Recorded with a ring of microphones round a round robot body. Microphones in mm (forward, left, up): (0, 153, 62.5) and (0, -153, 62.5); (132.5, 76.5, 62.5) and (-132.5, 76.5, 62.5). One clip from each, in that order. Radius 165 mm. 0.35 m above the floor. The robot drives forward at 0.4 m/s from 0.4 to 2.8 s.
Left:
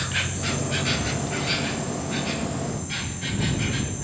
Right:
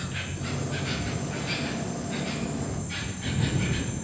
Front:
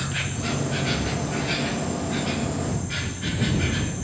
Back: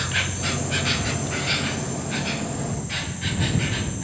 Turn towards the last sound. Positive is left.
turn(degrees=160)